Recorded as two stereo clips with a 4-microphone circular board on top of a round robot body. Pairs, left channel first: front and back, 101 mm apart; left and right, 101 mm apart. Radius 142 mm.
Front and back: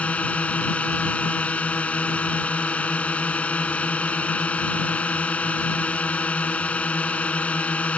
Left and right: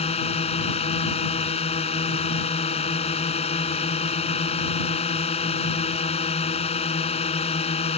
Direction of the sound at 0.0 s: 80° left.